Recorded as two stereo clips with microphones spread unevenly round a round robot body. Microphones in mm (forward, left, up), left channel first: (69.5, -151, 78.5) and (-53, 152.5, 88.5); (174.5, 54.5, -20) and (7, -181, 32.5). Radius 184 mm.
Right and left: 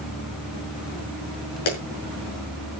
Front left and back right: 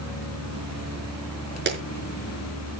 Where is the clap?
75° right, 6 m.